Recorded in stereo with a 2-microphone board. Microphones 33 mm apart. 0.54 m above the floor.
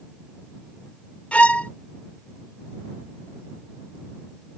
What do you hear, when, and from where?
1.3 s a violin: 40° left (ahead or behind)